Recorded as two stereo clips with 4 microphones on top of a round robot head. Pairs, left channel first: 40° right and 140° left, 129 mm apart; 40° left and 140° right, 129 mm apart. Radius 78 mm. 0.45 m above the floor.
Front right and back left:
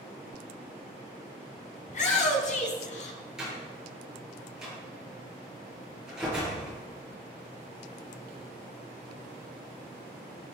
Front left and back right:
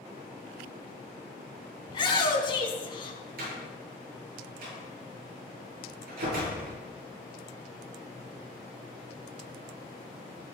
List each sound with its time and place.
1.9 s a shout: 15° right, 3.5 m
3.4 s a door slam: 135° right, 8 m